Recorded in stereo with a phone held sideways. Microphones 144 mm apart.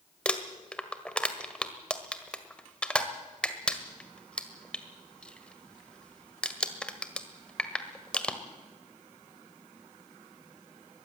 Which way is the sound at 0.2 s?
5° left (ahead or behind).